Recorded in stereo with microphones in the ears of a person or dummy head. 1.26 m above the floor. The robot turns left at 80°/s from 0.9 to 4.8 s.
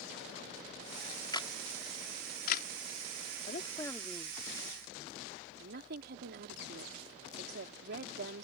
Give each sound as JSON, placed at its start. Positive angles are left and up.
{"t": 1.3, "sound": "a camera shutter", "side_deg": 25}
{"t": 3.5, "sound": "a woman speaking", "side_deg": 45}